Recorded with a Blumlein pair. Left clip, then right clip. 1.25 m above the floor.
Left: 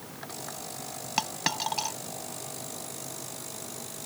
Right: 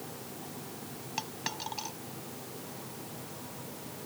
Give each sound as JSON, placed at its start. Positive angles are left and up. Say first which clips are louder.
{"t": 1.2, "sound": "a dropped coin", "louder": "left 8 dB", "azimuth_deg": 25}